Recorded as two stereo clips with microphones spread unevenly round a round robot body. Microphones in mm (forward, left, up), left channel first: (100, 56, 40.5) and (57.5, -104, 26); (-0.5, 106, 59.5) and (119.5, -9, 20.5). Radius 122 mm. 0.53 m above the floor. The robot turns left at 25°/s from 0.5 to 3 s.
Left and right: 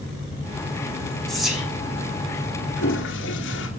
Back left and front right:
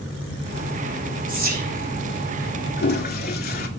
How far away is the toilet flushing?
About 1.9 m.